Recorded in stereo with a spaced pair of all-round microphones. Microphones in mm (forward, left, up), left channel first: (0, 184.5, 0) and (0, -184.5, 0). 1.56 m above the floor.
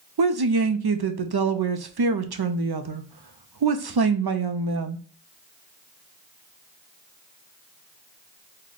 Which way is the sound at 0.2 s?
85° right.